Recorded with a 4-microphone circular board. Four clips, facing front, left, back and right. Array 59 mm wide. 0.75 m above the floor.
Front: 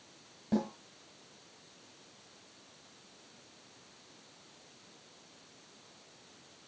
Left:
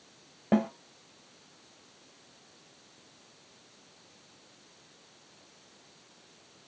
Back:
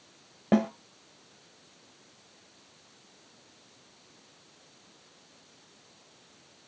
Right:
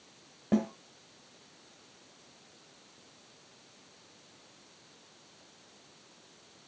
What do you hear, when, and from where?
0.5 s a snare drum: 160° left, 1.5 m